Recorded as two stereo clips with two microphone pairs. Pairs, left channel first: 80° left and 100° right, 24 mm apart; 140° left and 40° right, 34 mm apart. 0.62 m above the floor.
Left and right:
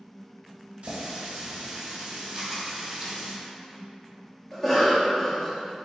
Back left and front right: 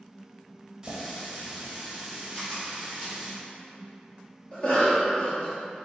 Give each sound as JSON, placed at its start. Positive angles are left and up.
{"t": 0.8, "sound": "a running tap", "azimuth_deg": -110, "distance_m": 1.1}
{"t": 2.4, "sound": "a camera shutter", "azimuth_deg": -165, "distance_m": 1.9}
{"t": 4.5, "sound": "a cough", "azimuth_deg": 135, "distance_m": 1.1}